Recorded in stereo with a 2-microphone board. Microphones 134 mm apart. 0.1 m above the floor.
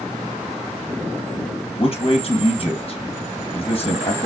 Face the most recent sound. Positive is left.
turn(degrees=45)  # may be behind; listen again after turning